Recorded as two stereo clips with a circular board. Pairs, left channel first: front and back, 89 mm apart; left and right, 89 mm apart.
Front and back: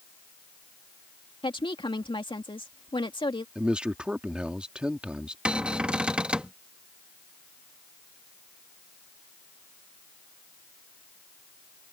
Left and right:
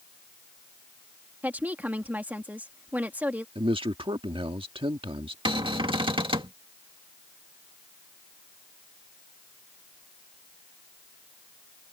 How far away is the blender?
I don't hear a blender.